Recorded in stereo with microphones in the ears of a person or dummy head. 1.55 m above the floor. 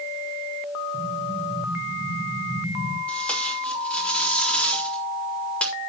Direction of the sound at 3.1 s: 15° left (ahead or behind).